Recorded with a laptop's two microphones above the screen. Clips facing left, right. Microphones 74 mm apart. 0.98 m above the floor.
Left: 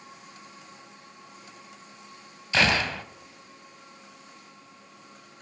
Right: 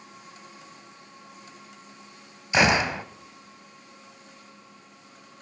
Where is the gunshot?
20° right (ahead or behind), 0.9 m.